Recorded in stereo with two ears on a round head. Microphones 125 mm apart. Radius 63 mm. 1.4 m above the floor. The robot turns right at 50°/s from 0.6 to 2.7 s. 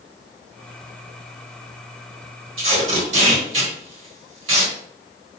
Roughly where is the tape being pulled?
Right.